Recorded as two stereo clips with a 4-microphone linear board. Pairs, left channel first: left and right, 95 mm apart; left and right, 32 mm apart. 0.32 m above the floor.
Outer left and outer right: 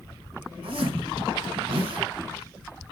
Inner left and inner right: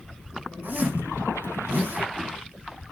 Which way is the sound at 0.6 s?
65° right (ahead or behind).